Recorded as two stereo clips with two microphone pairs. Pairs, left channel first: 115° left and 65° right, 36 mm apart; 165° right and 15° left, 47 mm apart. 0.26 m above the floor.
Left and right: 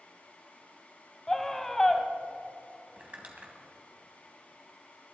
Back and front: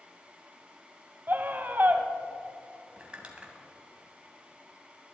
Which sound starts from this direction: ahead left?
A scream, at 1.3 s.